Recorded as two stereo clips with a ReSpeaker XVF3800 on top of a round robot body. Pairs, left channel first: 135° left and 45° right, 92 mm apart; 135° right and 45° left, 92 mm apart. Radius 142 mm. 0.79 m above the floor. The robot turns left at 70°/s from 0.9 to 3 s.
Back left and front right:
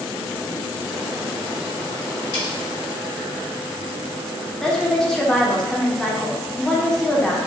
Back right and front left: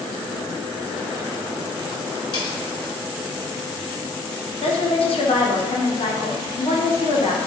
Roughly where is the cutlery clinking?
Behind.